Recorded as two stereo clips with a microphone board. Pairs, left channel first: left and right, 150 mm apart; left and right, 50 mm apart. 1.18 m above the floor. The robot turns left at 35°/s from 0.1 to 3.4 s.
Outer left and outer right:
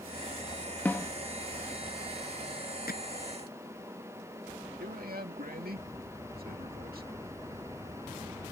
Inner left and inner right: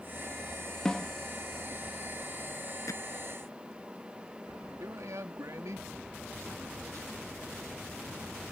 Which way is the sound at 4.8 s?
80° right.